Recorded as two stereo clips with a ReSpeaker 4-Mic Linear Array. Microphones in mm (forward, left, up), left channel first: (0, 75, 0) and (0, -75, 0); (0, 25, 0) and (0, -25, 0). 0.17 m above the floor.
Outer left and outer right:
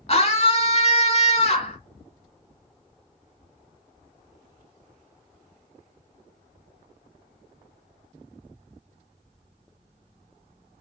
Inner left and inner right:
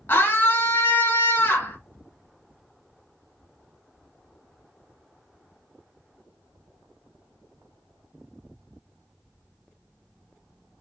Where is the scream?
45° left (ahead or behind), 1.5 m.